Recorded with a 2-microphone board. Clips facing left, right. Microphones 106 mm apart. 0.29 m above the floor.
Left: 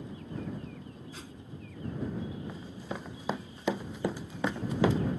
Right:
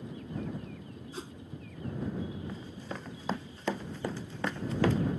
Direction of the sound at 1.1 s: 30° right (ahead or behind).